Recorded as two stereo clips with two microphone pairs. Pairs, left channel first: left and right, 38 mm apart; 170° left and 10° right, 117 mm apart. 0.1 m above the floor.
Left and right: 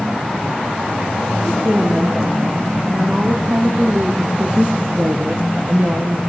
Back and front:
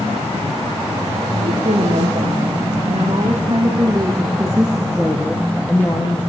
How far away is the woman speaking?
About 7 m.